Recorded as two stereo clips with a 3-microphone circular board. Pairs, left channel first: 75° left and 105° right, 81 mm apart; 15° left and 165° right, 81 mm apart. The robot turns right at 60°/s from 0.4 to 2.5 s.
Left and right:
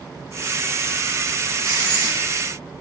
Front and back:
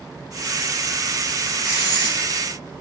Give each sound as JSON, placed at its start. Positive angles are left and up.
{"t": 1.6, "sound": "writing", "azimuth_deg": -90, "distance_m": 1.9}